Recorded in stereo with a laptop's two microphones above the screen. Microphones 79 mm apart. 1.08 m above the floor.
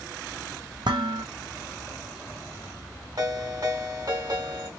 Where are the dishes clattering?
80° right, 0.7 m.